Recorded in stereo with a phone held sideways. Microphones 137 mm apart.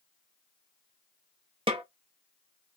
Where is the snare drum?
40° right (ahead or behind), 1.1 m.